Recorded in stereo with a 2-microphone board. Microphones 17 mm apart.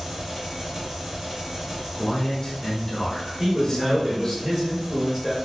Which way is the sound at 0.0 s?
25° right (ahead or behind).